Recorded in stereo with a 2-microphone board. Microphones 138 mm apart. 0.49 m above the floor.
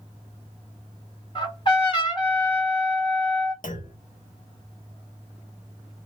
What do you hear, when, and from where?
1.4 s a trumpet: 35° left (ahead or behind), 1.6 m
3.6 s a clunk: 80° left, 0.6 m